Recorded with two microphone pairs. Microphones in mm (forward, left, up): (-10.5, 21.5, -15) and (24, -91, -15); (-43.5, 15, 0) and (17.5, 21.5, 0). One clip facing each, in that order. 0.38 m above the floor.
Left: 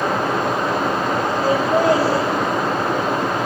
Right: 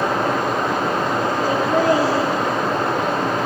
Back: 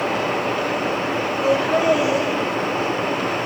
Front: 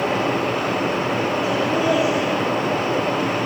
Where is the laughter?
160° left, 6.5 m.